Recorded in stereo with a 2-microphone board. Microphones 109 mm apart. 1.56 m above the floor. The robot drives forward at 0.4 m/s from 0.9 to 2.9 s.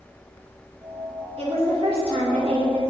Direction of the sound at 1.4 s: 70° right (ahead or behind).